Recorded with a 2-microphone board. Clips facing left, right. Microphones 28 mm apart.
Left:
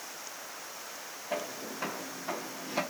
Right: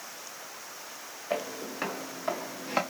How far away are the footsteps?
About 1.8 m.